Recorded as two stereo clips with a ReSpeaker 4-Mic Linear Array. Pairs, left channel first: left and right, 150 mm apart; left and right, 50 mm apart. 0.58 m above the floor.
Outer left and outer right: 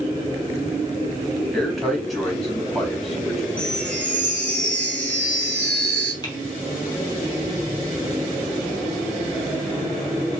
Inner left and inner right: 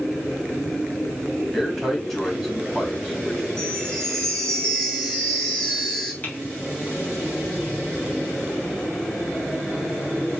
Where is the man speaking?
Centre (ahead or behind), 3.5 m.